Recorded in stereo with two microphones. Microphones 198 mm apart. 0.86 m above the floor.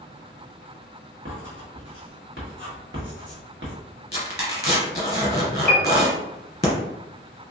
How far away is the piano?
About 0.7 m.